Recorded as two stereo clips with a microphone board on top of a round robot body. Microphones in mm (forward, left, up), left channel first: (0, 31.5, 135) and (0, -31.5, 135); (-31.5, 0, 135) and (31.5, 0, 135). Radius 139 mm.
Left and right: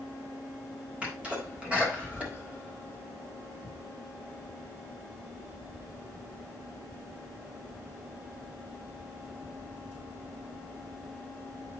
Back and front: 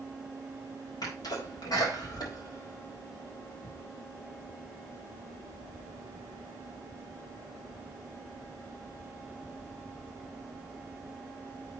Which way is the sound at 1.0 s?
160° right.